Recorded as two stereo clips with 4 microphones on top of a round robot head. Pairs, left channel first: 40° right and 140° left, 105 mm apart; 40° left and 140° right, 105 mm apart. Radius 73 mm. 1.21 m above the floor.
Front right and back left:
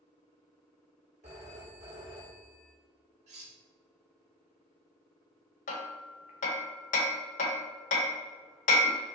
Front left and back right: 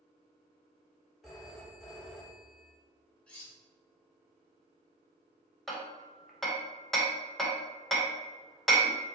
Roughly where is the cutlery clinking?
Behind left.